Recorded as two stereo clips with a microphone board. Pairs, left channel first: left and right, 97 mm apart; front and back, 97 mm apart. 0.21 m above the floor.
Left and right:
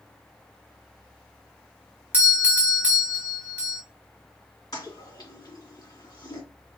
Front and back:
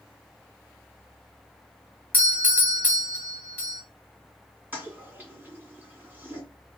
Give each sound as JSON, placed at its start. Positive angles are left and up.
{"t": 2.1, "sound": "a doorbell", "azimuth_deg": -45, "distance_m": 1.7}
{"t": 4.7, "sound": "a toilet flushing", "azimuth_deg": 115, "distance_m": 2.0}